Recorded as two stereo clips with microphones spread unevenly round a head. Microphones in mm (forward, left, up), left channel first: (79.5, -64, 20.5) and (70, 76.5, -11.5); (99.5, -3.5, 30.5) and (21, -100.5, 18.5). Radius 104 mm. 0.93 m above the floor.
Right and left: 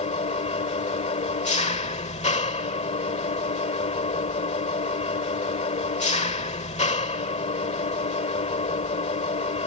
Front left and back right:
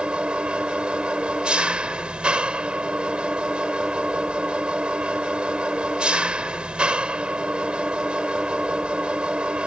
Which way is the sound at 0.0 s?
45° right.